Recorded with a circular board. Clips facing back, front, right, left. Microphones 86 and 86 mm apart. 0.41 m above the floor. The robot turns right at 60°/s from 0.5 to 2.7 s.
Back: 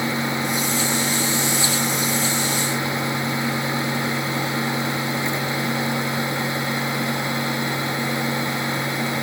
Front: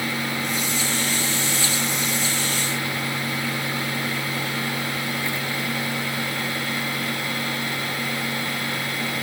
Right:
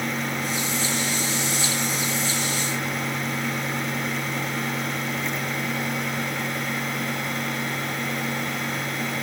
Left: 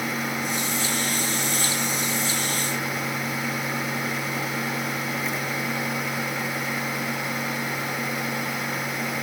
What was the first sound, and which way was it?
Only background noise.